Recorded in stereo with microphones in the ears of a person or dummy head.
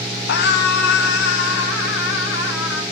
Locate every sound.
0.3 s a scream: 60° left (ahead or behind), 1.4 m; by 2.8 s 70° left (ahead or behind), 4.5 m